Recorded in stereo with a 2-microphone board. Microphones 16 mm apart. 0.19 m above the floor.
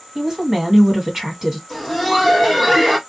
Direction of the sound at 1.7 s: Centre (ahead or behind).